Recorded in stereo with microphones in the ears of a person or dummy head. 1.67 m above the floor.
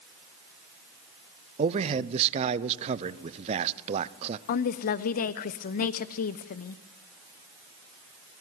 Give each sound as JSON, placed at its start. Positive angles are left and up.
{"t": 1.6, "sound": "a man speaking", "side_deg": -30, "distance_m": 0.8}
{"t": 4.5, "sound": "a woman speaking", "side_deg": 50, "distance_m": 0.7}